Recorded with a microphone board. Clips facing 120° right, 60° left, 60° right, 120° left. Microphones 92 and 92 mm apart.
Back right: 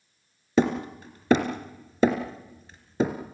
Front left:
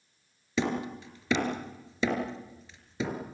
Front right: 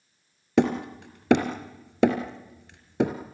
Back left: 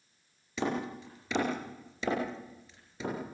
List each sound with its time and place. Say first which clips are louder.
0.6 s hammering: back right 6 dB, front right 10 dB; 80° right, 3 m